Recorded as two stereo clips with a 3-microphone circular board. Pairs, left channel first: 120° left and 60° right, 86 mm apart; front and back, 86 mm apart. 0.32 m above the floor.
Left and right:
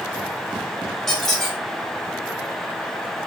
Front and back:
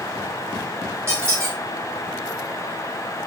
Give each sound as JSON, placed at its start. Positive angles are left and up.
{"t": 1.1, "sound": "a squeak", "azimuth_deg": -155, "distance_m": 0.9}